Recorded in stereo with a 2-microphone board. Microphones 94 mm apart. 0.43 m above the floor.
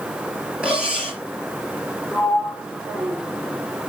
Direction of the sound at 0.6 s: 10° right (ahead or behind).